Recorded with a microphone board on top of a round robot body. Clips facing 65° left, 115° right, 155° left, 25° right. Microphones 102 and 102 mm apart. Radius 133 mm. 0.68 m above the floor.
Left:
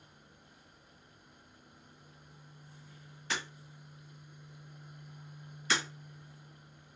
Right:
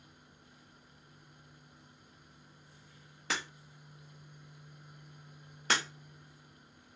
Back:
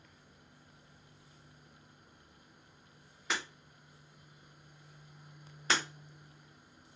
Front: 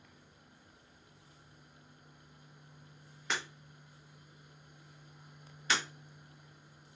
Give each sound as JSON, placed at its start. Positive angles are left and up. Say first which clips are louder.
{"t": 3.3, "sound": "breaking glass", "louder": "right 1 dB, even", "azimuth_deg": -115, "distance_m": 1.1}
{"t": 5.7, "sound": "breaking glass", "louder": "right 1 dB, back 1 dB", "azimuth_deg": -150, "distance_m": 1.1}